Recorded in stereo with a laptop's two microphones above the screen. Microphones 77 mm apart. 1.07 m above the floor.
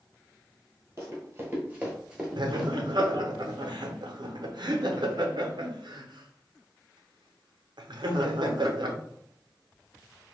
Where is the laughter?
75° right (ahead or behind), 0.5 m.